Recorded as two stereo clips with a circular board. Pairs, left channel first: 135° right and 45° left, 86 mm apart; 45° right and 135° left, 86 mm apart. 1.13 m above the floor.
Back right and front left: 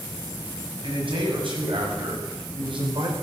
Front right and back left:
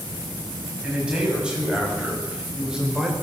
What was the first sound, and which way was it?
A man speaking, 55° left.